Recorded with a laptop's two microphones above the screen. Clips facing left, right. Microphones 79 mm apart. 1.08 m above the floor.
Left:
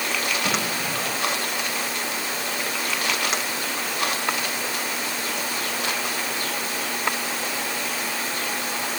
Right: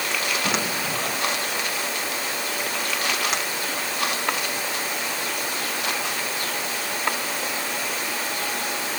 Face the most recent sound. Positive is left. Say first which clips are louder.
# even
turn(degrees=-10)  # may be behind; listen again after turning